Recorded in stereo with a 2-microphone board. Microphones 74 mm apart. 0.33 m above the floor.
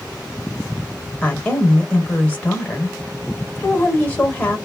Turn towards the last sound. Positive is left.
turn(degrees=20)  # may be behind; listen again after turning